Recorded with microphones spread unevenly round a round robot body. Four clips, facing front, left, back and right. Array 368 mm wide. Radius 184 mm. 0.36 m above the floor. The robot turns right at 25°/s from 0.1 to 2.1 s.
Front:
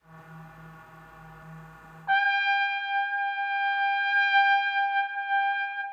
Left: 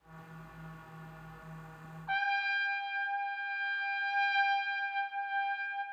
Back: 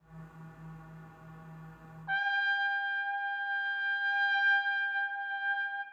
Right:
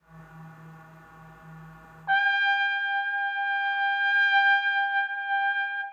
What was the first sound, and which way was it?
A trumpet, 55° right.